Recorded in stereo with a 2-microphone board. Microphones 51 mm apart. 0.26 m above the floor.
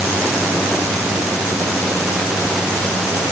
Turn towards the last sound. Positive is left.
No sound to turn to.